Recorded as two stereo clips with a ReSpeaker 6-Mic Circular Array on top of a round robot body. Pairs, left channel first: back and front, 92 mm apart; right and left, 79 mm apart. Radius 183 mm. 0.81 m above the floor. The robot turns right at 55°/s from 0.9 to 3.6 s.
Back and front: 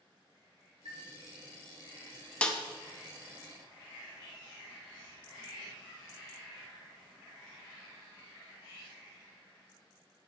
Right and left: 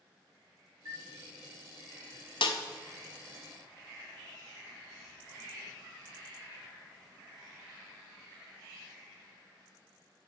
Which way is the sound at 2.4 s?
105° right.